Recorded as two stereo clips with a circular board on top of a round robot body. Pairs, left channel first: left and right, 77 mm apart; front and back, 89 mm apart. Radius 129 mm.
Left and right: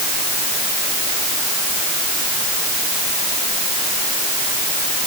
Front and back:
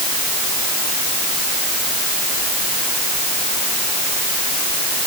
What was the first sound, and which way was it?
Only background noise.